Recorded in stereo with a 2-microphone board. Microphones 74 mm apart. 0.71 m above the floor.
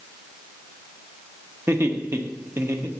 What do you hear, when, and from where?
1.7 s laughter: 35° right (ahead or behind), 1.0 m